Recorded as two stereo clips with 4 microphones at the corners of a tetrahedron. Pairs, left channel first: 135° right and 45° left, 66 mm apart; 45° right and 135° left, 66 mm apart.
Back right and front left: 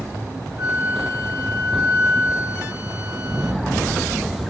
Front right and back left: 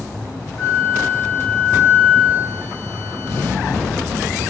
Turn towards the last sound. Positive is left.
turn(degrees=-20)